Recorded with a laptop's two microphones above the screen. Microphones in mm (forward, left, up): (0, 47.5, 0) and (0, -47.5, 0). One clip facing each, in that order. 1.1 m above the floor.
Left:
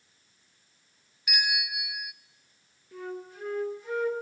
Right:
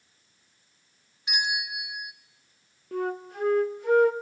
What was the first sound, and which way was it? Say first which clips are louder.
A bell: right 1 dB; 25° right (ahead or behind).